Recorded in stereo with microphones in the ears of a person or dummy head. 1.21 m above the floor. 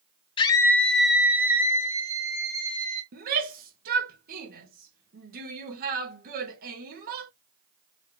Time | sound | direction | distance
0.4 | a scream | 25° left (ahead or behind) | 0.6 m
3.1 | a shout | 55° right (ahead or behind) | 1.0 m